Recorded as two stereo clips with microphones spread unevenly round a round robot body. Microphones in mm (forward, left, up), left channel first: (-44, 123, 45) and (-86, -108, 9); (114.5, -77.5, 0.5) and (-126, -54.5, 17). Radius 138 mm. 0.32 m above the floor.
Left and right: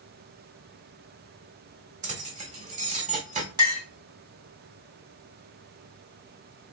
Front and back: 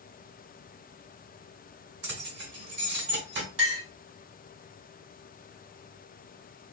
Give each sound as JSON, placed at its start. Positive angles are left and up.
{"t": 2.0, "sound": "keys jangling", "azimuth_deg": -145, "distance_m": 1.5}
{"t": 3.6, "sound": "a clink", "azimuth_deg": -170, "distance_m": 1.8}